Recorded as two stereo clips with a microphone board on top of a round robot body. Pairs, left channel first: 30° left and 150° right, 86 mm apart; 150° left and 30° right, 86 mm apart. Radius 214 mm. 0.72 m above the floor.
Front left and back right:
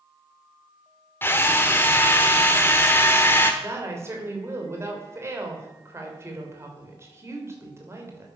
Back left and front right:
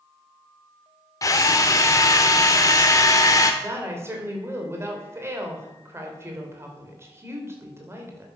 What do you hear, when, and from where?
1.2 s a drill: 95° left, 0.9 m
3.6 s a woman speaking: 90° right, 3.5 m